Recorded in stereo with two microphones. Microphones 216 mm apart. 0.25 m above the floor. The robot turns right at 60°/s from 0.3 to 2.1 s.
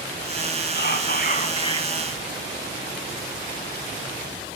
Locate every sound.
0.8 s whispering: 90° left, 1.6 m; by 2.0 s 165° left, 1.6 m